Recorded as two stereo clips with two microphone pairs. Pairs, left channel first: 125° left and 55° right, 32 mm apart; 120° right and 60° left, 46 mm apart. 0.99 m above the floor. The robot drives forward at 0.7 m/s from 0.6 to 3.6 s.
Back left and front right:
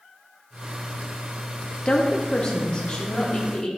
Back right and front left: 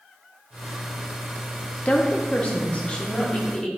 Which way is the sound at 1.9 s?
Straight behind.